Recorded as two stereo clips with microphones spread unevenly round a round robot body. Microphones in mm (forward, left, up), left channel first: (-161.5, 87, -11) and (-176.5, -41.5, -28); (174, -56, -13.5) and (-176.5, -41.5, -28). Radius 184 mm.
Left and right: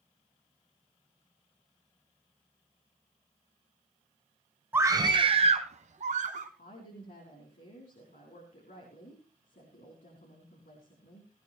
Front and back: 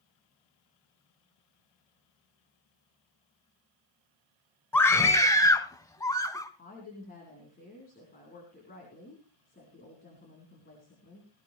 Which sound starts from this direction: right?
A scream, at 4.7 s.